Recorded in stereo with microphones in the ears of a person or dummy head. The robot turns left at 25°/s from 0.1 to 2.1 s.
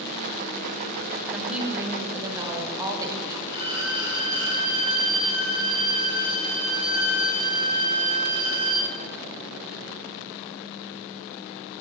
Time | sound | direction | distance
1.3 | a woman speaking | centre (ahead or behind) | 1.0 m
3.5 | a violin | 25° right (ahead or behind) | 1.2 m